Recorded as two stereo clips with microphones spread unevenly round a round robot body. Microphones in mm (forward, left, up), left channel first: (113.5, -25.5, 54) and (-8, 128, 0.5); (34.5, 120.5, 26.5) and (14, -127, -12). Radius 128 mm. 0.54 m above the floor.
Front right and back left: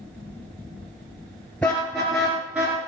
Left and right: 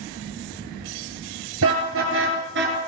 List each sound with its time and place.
1.6 s a car horn: 135° right, 3.5 m; by 2.8 s 145° right, 2.5 m